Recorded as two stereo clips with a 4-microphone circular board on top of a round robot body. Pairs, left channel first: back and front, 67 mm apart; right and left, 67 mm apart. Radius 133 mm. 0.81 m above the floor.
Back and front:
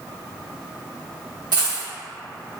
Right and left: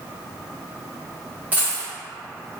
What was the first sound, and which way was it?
A dropped coin, 25° left.